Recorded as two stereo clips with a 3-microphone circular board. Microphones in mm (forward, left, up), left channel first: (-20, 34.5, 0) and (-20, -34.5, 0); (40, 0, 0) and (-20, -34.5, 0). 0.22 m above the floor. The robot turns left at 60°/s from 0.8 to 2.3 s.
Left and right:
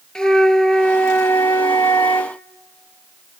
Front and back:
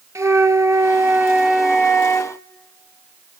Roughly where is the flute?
Behind.